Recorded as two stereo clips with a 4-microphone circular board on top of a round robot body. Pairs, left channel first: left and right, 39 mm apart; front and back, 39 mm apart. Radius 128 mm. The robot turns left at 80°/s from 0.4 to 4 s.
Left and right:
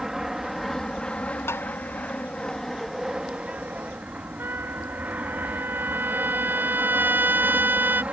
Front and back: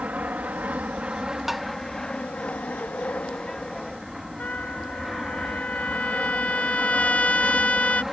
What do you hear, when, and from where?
0.0 s an aircraft: 165° right; by 8.1 s 95° right
1.5 s tapping: 100° left; by 1.7 s 80° left
4.4 s a trumpet: 55° right